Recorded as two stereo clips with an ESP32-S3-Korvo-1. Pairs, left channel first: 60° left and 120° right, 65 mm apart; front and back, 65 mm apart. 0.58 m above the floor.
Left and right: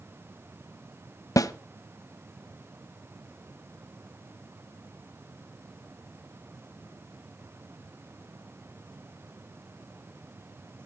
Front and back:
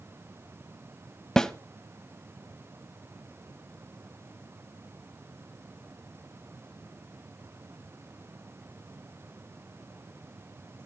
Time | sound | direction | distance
1.4 | a snare drum | 80° left | 0.7 m